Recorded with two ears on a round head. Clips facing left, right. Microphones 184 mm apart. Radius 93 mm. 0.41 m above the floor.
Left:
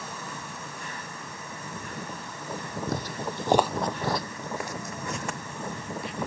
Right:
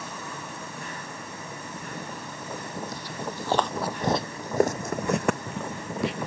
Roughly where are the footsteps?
Left.